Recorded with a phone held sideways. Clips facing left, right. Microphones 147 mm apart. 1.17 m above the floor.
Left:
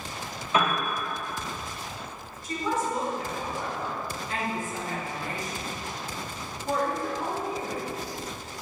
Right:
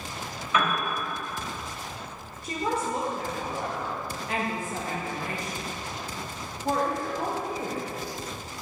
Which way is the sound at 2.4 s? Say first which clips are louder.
Even; 65° right (ahead or behind).